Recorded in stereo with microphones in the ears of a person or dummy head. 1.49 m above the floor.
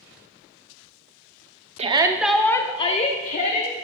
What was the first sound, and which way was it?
A shout, 35° right (ahead or behind).